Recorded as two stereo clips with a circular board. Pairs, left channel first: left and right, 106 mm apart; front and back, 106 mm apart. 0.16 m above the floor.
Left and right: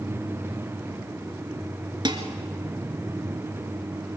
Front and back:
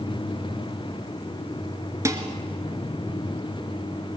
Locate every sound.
2.0 s dishes clattering: 125° right, 1.8 m